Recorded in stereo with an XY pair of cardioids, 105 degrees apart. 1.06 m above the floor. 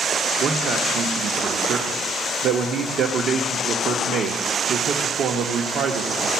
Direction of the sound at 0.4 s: 65° right.